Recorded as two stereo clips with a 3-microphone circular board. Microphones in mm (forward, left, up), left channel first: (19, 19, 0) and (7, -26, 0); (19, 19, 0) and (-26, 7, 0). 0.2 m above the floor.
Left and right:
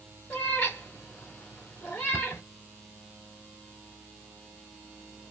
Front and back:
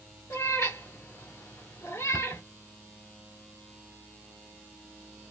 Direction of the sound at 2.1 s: 150° left.